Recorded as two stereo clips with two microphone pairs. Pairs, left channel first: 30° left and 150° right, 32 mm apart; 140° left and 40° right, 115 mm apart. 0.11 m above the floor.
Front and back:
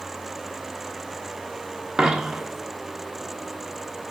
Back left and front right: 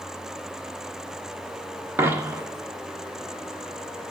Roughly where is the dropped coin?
Right.